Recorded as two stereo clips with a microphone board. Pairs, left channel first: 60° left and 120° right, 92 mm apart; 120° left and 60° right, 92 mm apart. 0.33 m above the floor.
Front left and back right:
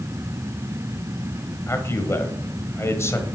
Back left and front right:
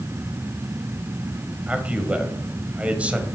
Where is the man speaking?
10° left, 1.3 m.